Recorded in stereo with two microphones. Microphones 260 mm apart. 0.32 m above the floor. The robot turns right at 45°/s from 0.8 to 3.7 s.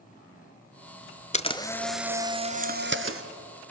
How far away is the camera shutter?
About 0.9 m.